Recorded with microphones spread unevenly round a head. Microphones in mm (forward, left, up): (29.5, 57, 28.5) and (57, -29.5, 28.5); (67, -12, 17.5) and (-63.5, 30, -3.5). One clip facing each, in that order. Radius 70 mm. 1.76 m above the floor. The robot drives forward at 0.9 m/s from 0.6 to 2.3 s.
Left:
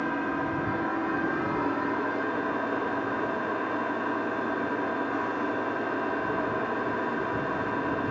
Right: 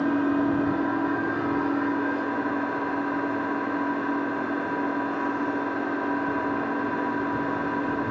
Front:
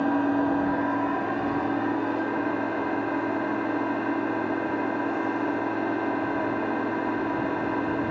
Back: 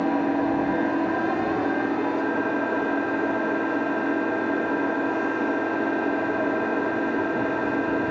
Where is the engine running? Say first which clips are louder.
Right 6 dB, back 1 dB; 125° right, 0.8 m; by 8.1 s 170° right, 1.9 m.